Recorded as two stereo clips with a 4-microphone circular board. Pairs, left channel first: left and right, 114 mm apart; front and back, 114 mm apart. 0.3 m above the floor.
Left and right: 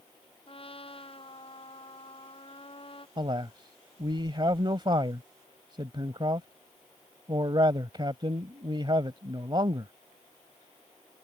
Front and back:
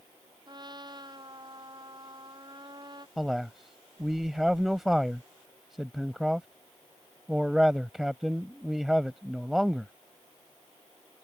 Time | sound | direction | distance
0.5 | a trumpet | 130° left | ?
3.2 | a man speaking | 95° right | ?